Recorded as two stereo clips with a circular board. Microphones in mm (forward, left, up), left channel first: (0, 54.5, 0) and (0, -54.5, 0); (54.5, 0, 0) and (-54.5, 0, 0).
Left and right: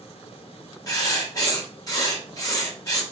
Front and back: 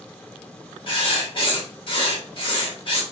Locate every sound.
0.9 s writing: 35° left, 2.5 m